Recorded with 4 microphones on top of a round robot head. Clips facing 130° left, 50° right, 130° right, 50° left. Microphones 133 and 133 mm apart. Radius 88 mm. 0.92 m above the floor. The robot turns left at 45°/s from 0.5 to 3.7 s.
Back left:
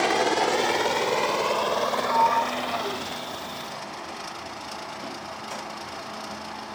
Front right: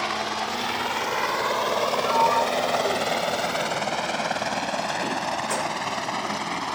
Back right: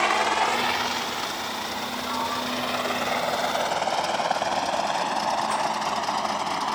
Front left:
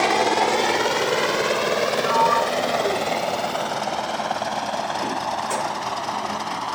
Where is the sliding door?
75° left; by 6.4 s 5° right.